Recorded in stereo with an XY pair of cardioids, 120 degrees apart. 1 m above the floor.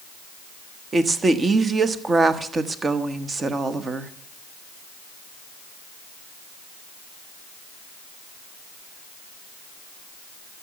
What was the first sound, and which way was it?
A woman speaking, 30° right.